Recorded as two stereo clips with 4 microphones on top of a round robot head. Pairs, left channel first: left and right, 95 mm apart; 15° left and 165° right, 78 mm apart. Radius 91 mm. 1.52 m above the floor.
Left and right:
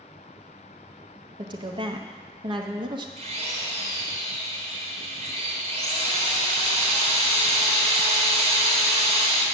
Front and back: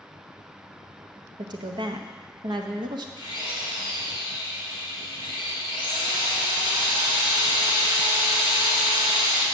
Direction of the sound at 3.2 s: 115° right.